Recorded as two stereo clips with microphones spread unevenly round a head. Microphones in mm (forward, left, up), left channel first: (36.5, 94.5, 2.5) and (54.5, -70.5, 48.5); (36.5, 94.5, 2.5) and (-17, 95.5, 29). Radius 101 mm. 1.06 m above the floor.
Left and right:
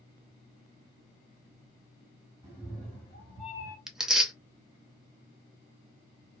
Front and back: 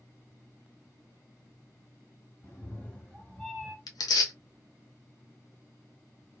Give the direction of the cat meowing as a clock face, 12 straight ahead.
3 o'clock.